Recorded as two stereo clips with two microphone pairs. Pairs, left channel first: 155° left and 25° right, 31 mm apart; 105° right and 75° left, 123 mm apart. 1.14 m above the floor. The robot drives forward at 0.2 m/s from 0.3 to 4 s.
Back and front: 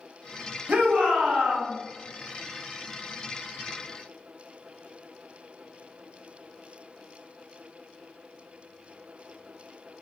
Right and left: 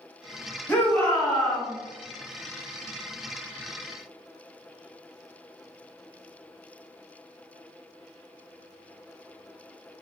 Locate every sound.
0.7 s a shout: 30° right, 1.3 m; by 1.7 s 35° right, 1.1 m